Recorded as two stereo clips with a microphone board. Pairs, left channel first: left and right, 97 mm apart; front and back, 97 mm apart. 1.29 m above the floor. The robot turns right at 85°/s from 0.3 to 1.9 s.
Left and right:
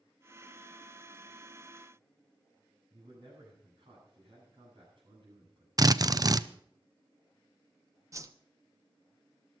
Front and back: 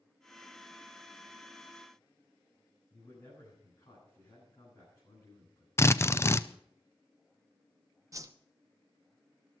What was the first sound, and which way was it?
A man speaking, 50° right.